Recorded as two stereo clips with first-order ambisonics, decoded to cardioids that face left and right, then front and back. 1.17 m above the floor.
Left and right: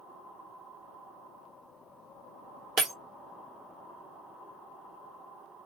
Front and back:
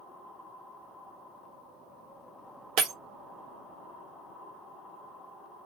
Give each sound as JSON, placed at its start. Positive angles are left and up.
{"t": 2.8, "sound": "breaking glass", "azimuth_deg": -160, "distance_m": 1.1}